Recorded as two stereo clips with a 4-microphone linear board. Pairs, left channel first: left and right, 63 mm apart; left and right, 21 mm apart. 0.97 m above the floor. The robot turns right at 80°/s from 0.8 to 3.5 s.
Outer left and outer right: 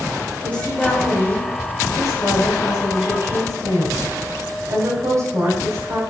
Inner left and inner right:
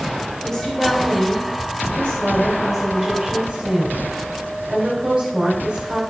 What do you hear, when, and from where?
0.4 s a woman speaking: 20° left, 4 m; by 6.0 s 125° right, 4 m